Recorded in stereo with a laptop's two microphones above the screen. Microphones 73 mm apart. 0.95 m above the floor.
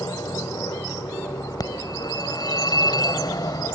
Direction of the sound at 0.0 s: 70° left (ahead or behind).